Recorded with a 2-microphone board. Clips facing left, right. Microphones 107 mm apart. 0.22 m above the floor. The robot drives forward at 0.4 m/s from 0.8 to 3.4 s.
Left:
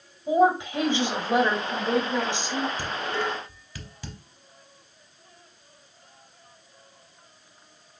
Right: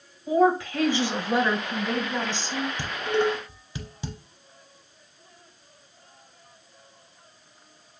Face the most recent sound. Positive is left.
turn(degrees=-20)  # may be behind; listen again after turning